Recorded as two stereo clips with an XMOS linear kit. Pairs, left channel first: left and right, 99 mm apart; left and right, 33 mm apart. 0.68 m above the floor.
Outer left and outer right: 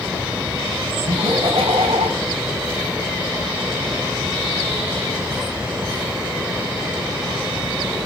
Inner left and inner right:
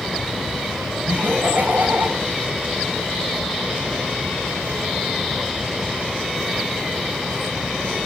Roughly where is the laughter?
Right.